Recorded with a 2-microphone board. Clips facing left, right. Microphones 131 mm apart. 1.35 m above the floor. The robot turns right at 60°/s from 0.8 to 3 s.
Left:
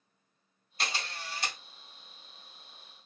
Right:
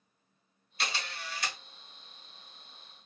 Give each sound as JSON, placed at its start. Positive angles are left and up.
{"t": 0.8, "sound": "a camera shutter", "azimuth_deg": 90, "distance_m": 1.3}